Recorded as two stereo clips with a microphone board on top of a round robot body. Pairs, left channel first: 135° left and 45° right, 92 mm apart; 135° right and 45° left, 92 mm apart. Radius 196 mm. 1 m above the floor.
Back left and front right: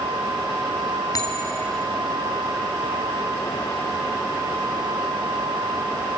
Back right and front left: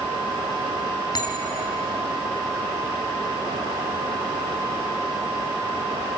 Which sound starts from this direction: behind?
A bell, at 1.1 s.